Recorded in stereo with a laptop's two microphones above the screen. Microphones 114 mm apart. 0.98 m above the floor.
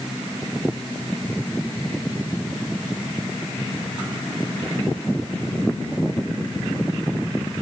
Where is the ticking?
I don't hear ticking.